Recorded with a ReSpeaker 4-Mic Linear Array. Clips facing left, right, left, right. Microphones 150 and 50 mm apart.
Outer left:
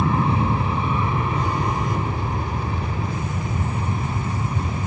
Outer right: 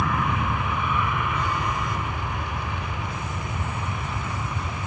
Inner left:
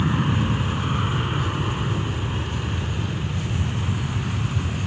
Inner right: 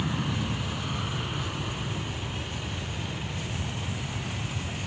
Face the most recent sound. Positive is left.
turn(degrees=40)  # may be behind; listen again after turning